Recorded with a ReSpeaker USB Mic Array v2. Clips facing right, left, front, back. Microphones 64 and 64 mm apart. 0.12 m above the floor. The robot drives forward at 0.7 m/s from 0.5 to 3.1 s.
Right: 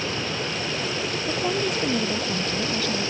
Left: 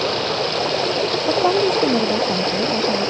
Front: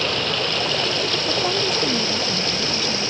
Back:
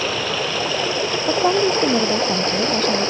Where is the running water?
95° left; by 3.1 s 125° left.